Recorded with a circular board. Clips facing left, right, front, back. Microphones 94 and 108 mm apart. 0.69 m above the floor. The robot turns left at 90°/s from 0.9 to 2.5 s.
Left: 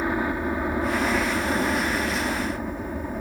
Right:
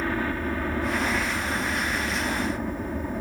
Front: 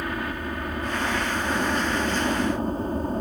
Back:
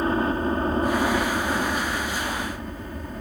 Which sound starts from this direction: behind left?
A helicopter, at 0.0 s.